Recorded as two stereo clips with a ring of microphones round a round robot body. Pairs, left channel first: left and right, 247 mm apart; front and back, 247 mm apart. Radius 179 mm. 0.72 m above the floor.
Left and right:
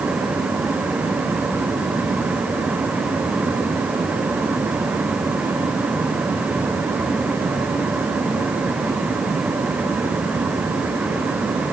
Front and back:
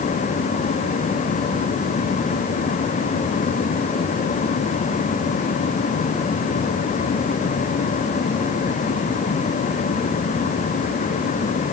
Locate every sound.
Only background noise.